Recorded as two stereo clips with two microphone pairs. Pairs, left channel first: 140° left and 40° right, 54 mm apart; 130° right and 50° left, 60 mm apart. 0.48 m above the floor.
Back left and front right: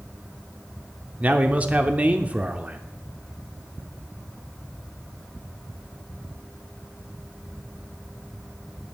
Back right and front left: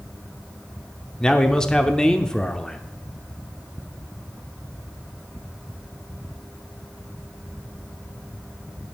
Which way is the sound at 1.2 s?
70° right.